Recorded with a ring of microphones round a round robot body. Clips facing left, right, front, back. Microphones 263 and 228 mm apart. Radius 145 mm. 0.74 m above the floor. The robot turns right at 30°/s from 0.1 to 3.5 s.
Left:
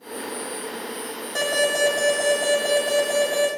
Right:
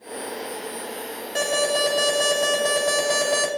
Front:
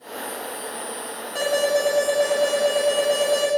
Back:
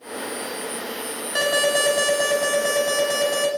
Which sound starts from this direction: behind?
An alarm, at 1.4 s.